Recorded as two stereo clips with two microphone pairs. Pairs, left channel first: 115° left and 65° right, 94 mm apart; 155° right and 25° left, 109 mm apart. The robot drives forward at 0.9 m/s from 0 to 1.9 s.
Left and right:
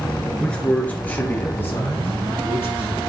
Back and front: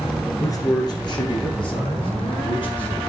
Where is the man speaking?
170° right, 1.5 m; by 3.0 s 175° right, 2.5 m.